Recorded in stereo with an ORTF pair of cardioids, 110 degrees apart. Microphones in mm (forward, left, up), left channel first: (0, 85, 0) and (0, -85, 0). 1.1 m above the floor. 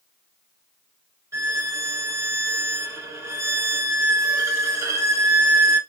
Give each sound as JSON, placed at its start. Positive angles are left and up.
{"t": 1.3, "sound": "a violin", "azimuth_deg": -20, "distance_m": 0.9}